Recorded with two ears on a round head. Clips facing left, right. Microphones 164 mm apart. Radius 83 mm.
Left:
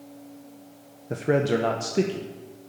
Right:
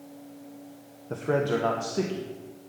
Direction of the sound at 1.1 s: 15° left (ahead or behind).